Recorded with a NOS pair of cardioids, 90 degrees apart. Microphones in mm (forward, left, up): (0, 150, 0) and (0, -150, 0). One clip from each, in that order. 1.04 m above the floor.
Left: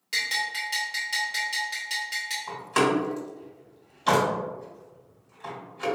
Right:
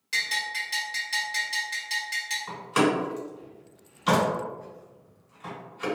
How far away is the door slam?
About 2.0 m.